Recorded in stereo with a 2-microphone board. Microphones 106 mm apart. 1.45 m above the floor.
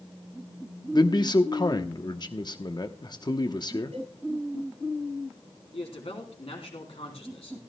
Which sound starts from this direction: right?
A cowbell, at 3.9 s.